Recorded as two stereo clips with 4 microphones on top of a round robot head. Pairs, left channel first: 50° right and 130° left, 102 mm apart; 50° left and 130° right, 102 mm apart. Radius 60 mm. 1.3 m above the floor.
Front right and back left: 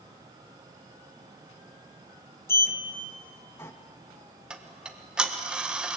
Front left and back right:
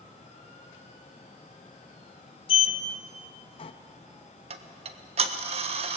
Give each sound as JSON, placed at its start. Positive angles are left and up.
{"t": 2.5, "sound": "a sliding door", "azimuth_deg": 15, "distance_m": 1.1}
{"t": 4.5, "sound": "ticking", "azimuth_deg": -150, "distance_m": 1.4}